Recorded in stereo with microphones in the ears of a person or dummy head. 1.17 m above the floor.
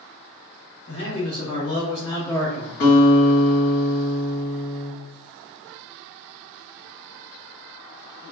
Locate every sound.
0.9 s a man speaking: 40° left (ahead or behind), 1.5 m; by 2.7 s 20° right (ahead or behind), 0.5 m
2.8 s a guitar: 40° left (ahead or behind), 2.0 m